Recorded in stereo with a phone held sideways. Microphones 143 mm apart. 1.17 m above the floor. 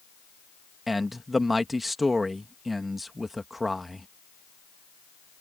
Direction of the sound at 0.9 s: Centre (ahead or behind).